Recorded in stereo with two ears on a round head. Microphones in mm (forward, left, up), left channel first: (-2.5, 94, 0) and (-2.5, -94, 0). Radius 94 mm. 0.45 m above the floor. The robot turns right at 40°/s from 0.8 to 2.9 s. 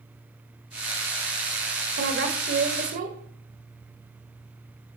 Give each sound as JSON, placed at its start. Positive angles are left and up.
{"t": 2.0, "sound": "a woman speaking", "azimuth_deg": -85, "distance_m": 1.5}